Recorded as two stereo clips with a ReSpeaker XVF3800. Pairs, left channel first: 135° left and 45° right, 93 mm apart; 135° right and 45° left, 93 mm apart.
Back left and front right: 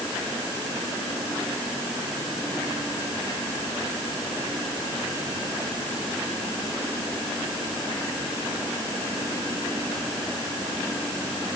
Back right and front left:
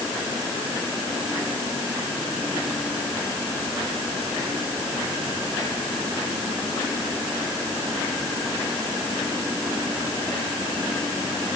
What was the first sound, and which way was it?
Only background noise.